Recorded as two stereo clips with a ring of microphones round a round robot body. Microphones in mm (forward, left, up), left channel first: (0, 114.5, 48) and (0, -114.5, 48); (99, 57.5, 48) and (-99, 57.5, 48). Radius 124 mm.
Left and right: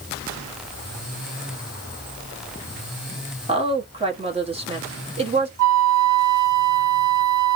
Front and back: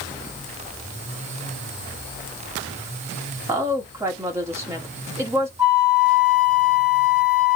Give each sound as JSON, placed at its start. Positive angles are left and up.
{"t": 3.5, "sound": "a woman speaking", "azimuth_deg": -120, "distance_m": 1.2}
{"t": 5.6, "sound": "a flute", "azimuth_deg": -105, "distance_m": 1.3}